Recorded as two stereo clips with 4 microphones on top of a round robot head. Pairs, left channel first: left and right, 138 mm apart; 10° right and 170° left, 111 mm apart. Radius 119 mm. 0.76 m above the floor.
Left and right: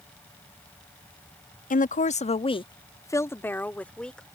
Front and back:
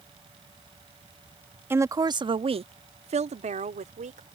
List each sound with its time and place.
1.7 s a woman speaking: 100° left; by 4.2 s 175° left